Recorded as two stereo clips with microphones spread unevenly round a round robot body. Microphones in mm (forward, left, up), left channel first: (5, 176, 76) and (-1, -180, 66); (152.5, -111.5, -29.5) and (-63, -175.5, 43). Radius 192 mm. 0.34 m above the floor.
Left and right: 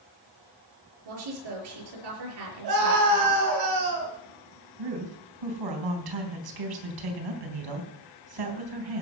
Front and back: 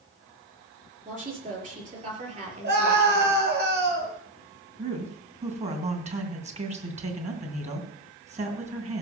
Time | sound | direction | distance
1.1 | a woman speaking | 105° right | 6.5 m
2.6 | a scream | 115° right | 7.5 m
4.8 | a woman speaking | 95° right | 3.5 m